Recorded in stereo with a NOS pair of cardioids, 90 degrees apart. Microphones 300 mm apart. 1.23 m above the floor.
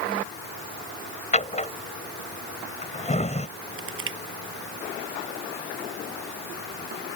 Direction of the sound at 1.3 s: 25° left.